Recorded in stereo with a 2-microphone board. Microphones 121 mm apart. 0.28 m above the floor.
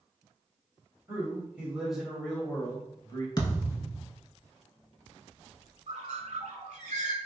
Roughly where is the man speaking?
Right.